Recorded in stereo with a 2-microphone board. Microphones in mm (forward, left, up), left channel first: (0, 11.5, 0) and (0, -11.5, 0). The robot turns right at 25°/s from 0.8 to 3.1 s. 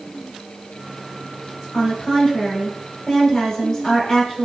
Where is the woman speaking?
100° left, 1.4 m; by 4.4 s 135° left, 1.4 m.